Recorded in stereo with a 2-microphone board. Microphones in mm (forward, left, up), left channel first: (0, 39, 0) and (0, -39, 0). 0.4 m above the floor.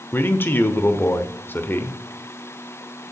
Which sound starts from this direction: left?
A man speaking, at 0.1 s.